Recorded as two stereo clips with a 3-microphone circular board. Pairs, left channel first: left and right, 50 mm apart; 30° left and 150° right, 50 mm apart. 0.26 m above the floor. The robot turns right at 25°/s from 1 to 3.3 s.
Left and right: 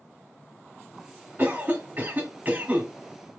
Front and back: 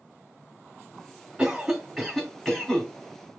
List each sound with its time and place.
1.4 s a cough: 75° right, 2 m; by 2.9 s 35° right, 2 m